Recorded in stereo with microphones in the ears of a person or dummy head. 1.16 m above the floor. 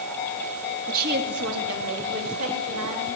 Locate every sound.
0.9 s a woman speaking: 45° right (ahead or behind), 1.8 m; by 3.1 s 85° right, 4.5 m